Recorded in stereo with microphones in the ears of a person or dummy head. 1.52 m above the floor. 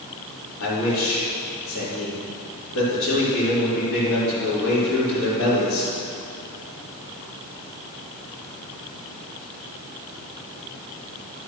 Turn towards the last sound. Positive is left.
turn(degrees=80)